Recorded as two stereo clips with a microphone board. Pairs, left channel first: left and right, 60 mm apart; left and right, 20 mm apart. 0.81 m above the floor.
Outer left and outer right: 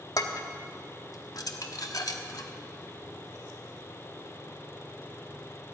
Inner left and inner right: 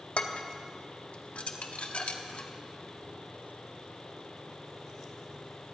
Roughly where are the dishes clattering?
Left.